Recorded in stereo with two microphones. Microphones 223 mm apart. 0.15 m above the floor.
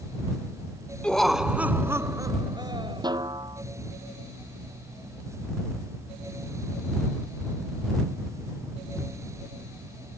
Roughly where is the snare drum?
Centre.